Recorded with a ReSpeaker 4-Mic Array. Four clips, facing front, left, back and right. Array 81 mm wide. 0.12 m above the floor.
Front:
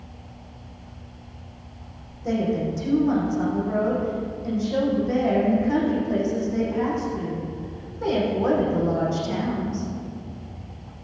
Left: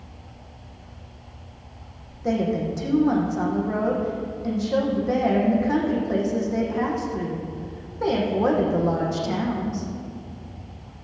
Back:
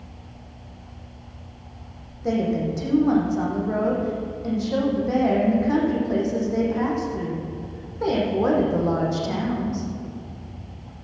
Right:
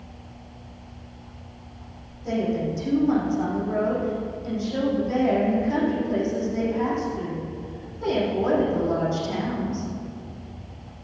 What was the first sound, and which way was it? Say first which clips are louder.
A woman speaking: left 2 dB, back 1 dB; 130° left.